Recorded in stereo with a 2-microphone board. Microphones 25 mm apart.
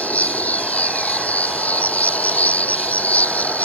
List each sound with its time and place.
0.0 s an insect: 70° left (ahead or behind)